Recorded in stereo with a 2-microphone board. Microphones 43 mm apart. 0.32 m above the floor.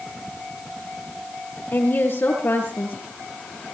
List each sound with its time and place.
1.7 s a woman speaking: 55° left (ahead or behind), 7.5 m